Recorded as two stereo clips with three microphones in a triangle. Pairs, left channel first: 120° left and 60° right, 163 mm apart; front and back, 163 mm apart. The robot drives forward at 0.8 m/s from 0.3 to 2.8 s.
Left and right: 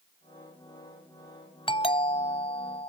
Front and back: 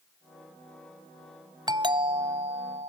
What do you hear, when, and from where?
1.7 s a doorbell: 140° left; by 2.9 s 160° left